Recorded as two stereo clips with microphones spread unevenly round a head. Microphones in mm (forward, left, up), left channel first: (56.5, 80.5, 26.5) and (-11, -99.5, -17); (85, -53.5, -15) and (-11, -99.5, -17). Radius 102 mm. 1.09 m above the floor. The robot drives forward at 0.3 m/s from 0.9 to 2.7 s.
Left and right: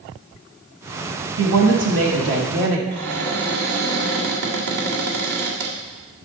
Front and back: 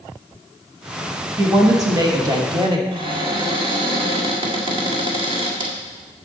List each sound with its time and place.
1.4 s a woman speaking: 95° right, 1.7 m; by 2.8 s 110° right, 1.8 m
2.9 s a cupboard door: 115° right, 1.9 m